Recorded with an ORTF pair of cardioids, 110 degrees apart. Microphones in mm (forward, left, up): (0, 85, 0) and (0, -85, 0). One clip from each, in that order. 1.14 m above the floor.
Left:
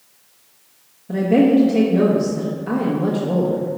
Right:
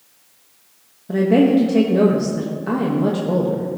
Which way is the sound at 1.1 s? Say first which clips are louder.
Even; 10° right.